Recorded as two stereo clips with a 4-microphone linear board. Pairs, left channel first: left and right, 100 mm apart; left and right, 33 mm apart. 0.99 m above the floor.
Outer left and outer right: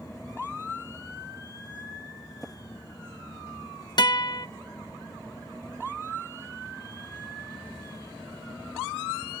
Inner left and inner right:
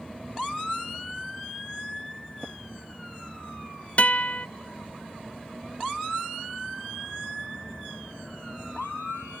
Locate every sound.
2.4 s tapping: 5° left (ahead or behind)
4.0 s a guitar: 45° left (ahead or behind)